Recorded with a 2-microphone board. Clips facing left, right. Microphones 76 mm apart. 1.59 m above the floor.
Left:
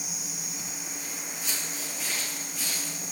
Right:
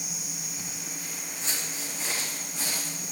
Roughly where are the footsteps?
Right.